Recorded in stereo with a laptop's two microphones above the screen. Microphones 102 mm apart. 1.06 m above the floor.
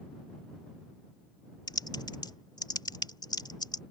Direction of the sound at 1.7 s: 45° left (ahead or behind).